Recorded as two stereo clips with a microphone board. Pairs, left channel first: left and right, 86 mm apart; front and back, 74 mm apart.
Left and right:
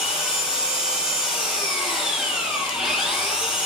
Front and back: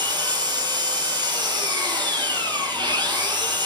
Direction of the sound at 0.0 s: 170° right.